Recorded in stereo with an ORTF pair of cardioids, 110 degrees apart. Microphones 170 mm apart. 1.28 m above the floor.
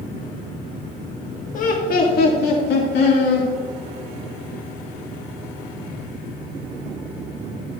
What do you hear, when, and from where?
1.5 s laughter: 45° left, 1.6 m; by 3.5 s 70° left, 3 m